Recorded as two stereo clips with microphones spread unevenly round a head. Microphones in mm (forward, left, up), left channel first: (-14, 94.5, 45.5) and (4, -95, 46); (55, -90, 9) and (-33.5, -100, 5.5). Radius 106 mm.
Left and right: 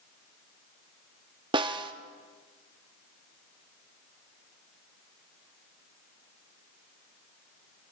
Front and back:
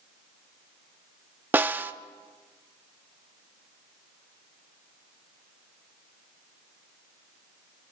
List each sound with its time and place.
1.5 s a snare drum: 125° right, 0.7 m